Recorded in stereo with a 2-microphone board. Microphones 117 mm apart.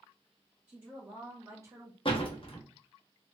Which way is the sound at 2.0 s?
45° left (ahead or behind).